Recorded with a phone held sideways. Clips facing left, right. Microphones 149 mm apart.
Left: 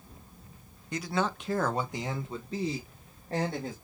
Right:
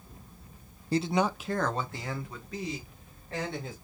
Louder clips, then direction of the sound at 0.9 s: Right 4 dB; 35° right (ahead or behind).